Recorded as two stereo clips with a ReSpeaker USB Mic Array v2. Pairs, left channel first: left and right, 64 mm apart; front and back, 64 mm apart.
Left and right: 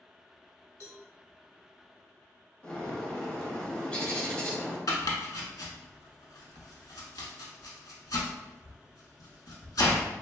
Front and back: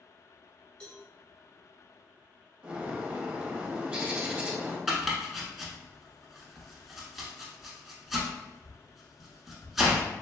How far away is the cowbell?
About 1.2 m.